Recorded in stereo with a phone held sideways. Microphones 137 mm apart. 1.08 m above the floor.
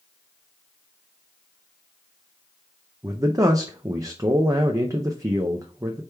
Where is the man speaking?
25° right (ahead or behind), 0.5 m.